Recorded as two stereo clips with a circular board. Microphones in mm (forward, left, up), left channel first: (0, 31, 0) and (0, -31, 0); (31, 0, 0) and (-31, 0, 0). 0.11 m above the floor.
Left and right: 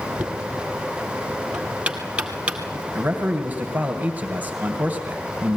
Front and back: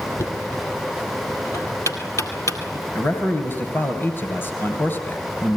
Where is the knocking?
20° right, 2 m.